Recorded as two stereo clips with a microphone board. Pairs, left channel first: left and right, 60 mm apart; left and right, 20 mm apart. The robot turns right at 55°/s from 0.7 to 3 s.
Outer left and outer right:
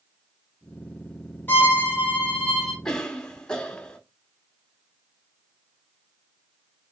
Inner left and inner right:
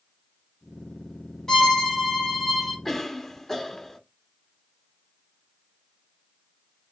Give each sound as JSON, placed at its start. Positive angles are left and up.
{"t": 1.5, "sound": "a violin", "azimuth_deg": 100, "distance_m": 1.2}
{"t": 2.9, "sound": "a cough", "side_deg": 10, "distance_m": 0.9}